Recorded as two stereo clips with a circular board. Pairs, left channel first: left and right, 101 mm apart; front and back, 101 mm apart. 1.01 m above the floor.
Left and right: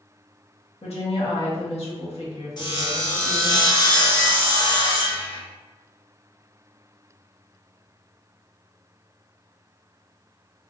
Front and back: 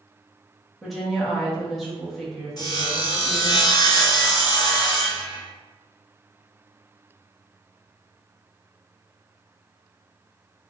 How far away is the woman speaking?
About 1.2 m.